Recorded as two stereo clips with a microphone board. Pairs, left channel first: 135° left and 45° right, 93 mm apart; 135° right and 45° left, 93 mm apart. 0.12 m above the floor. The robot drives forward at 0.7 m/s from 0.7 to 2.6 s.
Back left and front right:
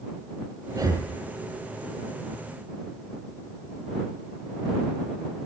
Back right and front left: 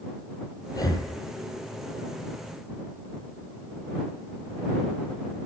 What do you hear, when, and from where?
0.7 s breathing: 90° right, 0.9 m; by 1.1 s 105° right, 1.0 m